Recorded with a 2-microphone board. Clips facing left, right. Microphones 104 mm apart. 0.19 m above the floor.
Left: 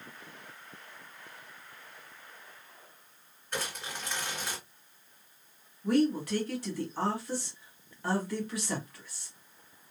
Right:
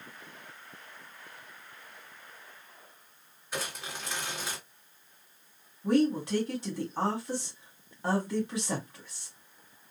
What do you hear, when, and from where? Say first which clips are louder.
3.5 s crumpling: even; 5° right (ahead or behind), 2 m
5.8 s a woman speaking: right 1 dB; 25° right (ahead or behind), 1.2 m